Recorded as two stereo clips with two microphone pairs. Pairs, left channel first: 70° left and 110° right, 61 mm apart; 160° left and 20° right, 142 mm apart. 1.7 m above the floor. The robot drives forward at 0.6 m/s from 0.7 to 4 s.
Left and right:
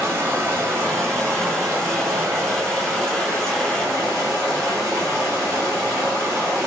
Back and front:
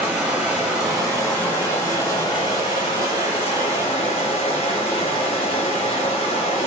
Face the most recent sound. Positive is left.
turn(degrees=-160)